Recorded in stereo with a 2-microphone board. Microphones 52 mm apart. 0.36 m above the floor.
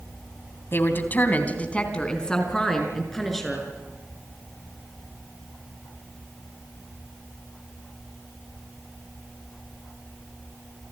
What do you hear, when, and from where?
0.7 s a woman speaking: 50° left (ahead or behind), 2.5 m; by 3.7 s 5° left (ahead or behind), 6 m